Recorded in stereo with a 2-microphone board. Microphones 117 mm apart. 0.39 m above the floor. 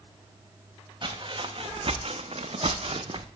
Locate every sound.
1.0 s footsteps: 35° right (ahead or behind), 1.3 m; by 3.3 s 45° right (ahead or behind), 0.7 m